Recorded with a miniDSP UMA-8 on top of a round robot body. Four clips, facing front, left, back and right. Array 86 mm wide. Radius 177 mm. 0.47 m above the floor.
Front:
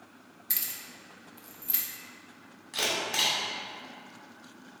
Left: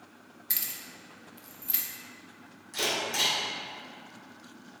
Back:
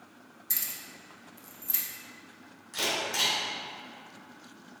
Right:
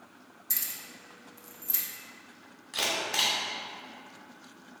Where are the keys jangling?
60° left, 0.7 m.